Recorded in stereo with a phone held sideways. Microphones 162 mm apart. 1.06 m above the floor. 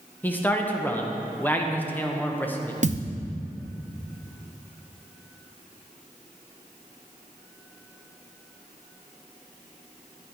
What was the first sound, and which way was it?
A man speaking, 10° left (ahead or behind).